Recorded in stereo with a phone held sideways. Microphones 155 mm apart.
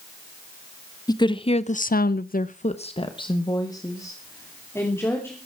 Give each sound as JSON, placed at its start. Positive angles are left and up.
{"t": 1.1, "sound": "a woman speaking", "side_deg": 25, "distance_m": 1.1}